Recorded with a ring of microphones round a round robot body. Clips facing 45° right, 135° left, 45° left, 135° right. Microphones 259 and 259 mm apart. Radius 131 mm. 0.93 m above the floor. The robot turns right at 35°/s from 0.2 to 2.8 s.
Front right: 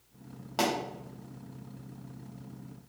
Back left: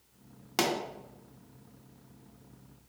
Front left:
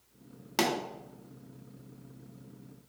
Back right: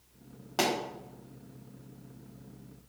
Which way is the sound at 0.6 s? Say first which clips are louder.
Even, even; 90° left.